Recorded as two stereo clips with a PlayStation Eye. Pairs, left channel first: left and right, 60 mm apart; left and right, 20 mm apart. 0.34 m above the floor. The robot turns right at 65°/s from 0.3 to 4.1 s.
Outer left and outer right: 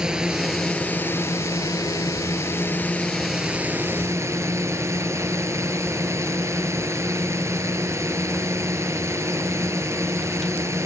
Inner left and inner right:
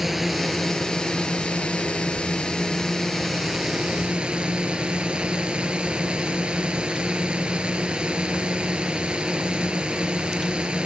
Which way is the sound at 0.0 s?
15° right.